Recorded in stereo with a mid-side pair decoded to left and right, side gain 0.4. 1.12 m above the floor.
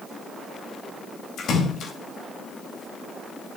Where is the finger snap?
I don't hear a finger snap.